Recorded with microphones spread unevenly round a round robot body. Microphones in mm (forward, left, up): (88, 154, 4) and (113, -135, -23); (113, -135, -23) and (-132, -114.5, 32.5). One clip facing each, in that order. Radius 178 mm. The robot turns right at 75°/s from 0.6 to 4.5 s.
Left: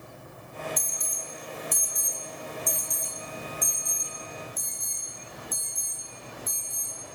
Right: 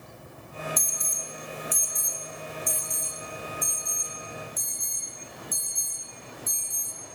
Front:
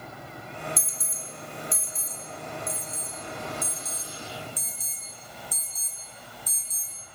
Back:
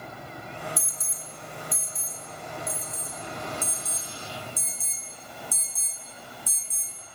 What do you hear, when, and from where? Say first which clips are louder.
0.8 s an alarm: right 1 dB, front 1 dB; 75° right, 7.5 m; by 7.0 s 155° right, 7.5 m